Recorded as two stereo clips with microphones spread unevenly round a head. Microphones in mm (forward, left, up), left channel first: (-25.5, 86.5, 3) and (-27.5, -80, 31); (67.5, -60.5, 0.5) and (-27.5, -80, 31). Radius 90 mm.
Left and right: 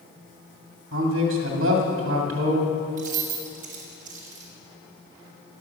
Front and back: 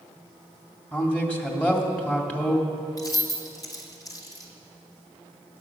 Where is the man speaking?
65° right, 2.5 m.